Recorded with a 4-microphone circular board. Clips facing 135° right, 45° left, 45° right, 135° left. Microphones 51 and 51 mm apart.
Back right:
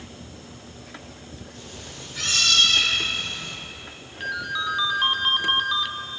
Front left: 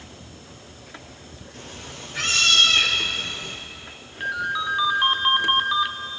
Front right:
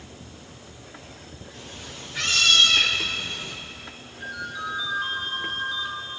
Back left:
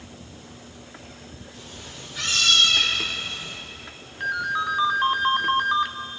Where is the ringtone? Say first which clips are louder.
Front left 2 dB, back left 8 dB; 120° left, 1.1 m.